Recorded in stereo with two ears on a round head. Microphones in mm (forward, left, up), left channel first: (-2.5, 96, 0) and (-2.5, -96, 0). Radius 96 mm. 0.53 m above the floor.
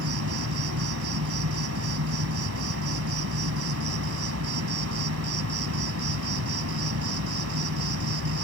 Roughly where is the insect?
Right.